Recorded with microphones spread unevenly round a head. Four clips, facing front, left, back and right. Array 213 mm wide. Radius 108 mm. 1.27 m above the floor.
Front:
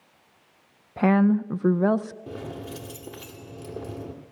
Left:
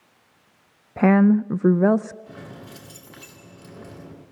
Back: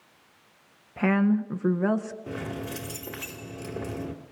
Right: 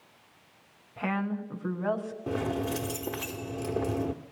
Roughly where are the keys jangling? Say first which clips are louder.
Right 11 dB, back 2 dB; right.